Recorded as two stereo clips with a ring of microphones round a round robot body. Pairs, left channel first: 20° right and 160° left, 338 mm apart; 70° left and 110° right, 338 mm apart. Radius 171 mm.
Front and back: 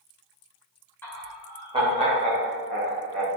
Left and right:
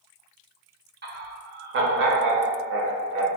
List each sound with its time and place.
1.0 s laughter: 100° right, 1.1 m; by 3.3 s 160° right, 1.7 m